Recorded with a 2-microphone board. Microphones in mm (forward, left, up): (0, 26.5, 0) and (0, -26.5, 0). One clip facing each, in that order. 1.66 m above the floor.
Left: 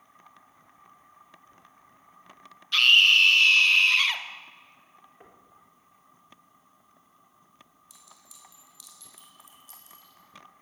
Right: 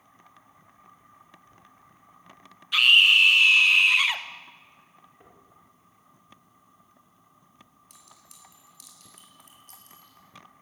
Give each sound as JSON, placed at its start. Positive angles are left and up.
{"t": 2.7, "sound": "a scream", "side_deg": -15, "distance_m": 2.0}
{"t": 5.2, "sound": "knocking", "side_deg": 20, "distance_m": 4.0}
{"t": 7.9, "sound": "a clink", "side_deg": -50, "distance_m": 6.0}